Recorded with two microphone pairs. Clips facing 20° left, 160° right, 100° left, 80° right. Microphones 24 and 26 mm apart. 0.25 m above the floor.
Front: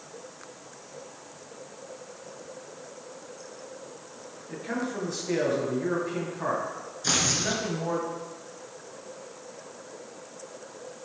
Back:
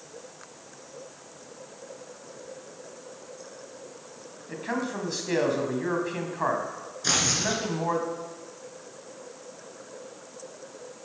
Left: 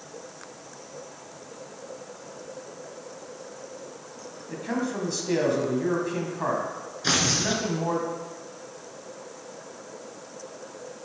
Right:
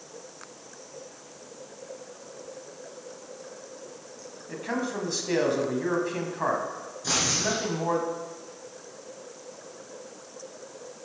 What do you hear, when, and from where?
4.5 s a man speaking: 155° right, 1.9 m
7.0 s tearing paper: 120° left, 1.9 m